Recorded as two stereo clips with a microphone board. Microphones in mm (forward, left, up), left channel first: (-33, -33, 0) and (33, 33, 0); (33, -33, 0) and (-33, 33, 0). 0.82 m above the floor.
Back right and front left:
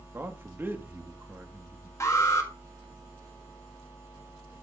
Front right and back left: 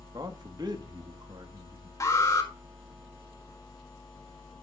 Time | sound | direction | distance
0.1 | a man speaking | 110° left | 1.2 m
2.0 | an alarm | 85° right | 1.7 m